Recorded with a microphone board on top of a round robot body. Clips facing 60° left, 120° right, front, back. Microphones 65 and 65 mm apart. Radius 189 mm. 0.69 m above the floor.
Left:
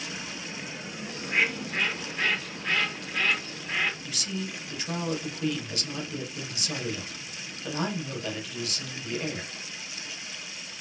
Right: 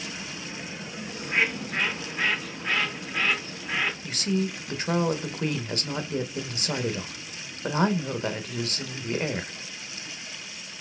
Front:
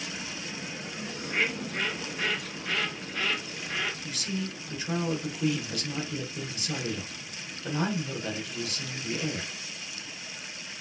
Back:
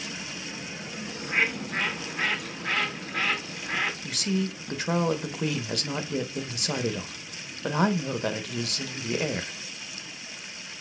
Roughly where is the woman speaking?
Behind.